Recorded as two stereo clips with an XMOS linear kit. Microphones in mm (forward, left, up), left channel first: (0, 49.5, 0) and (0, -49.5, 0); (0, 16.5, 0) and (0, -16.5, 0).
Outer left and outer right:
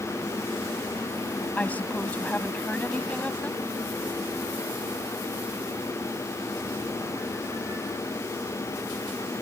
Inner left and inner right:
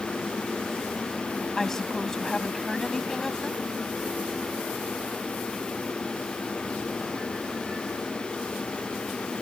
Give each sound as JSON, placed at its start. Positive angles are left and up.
{"t": 1.6, "sound": "a woman speaking", "side_deg": 15}